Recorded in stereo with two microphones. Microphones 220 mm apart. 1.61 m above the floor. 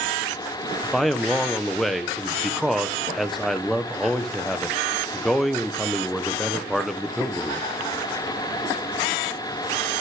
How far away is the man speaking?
About 1.0 m.